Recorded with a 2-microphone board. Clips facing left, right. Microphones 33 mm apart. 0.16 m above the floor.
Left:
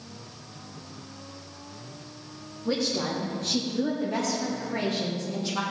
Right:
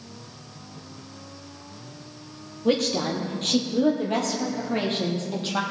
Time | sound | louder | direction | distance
2.6 | a woman speaking | right 5 dB | 70° right (ahead or behind) | 3 m